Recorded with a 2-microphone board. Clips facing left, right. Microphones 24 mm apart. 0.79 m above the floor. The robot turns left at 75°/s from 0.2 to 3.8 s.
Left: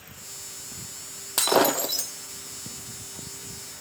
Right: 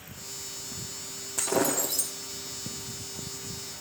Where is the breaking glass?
70° left, 1.8 m; by 2.1 s 15° left, 1.8 m.